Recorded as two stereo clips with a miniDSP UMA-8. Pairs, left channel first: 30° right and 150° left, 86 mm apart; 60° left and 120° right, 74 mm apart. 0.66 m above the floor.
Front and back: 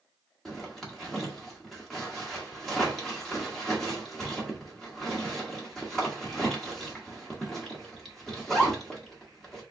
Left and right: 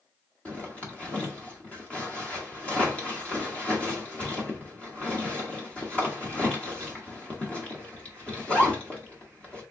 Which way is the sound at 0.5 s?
45° left.